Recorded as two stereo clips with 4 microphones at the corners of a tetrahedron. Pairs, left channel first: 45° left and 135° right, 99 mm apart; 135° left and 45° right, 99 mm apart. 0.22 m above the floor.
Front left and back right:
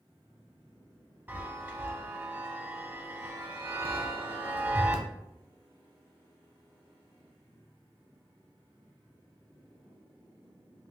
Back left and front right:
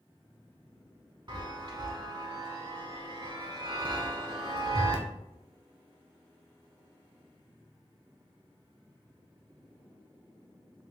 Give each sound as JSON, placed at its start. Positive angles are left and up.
{"t": 1.3, "sound": "a chime", "azimuth_deg": -70, "distance_m": 0.6}